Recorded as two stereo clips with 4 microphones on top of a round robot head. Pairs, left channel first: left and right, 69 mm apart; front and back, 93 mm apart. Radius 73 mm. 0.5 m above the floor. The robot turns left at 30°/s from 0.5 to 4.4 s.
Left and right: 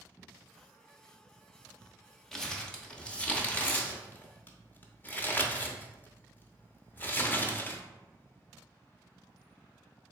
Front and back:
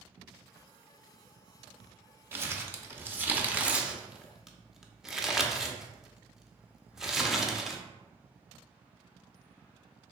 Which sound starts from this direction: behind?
Crumpling, at 2.3 s.